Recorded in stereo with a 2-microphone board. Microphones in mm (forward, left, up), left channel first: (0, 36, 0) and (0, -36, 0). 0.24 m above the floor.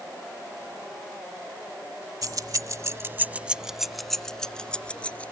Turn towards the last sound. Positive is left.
turn(degrees=15)  # may be behind; listen again after turning